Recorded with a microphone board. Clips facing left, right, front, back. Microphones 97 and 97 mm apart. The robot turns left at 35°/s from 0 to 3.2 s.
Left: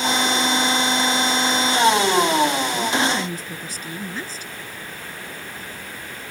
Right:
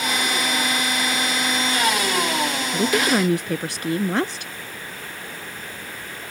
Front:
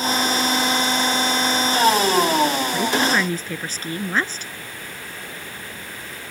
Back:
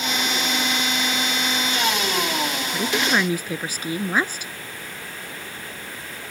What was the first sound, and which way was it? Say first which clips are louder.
A woman speaking: right 2 dB, front 2 dB; 85° right.